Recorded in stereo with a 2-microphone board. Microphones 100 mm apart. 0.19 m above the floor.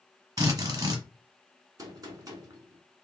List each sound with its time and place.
0.4 s a drill: 40° right (ahead or behind), 1.1 m
1.8 s a gunshot: 40° right (ahead or behind), 0.9 m